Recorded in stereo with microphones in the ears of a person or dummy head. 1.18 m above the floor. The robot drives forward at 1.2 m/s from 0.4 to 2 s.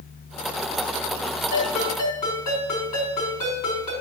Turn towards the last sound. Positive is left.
turn(degrees=45)  # may be behind; listen again after turning